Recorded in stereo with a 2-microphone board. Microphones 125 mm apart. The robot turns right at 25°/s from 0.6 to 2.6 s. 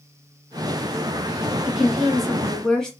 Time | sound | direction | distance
1.6 | a woman speaking | 5° right (ahead or behind) | 1.4 m